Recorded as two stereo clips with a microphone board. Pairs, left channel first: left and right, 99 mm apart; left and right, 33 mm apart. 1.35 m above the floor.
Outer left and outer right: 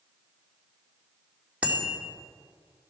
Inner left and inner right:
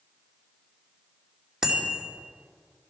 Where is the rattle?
I don't hear a rattle.